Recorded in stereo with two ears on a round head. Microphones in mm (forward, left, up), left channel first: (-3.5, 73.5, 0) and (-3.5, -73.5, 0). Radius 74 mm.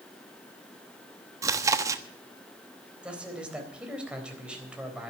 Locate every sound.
1.4 s chewing: 20° right (ahead or behind), 1.0 m
3.0 s a man speaking: 5° right (ahead or behind), 3.5 m